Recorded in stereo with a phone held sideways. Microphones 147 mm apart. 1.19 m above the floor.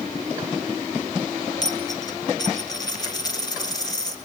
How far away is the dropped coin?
About 1.8 m.